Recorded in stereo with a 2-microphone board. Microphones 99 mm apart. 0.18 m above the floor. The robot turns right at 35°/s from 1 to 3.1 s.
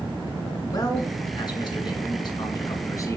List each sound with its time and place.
0.7 s a man speaking: 60° left, 2 m; by 3.2 s 135° left, 2 m